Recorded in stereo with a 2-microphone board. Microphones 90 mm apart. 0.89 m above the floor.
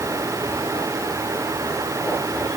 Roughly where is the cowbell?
No cowbell in this recording.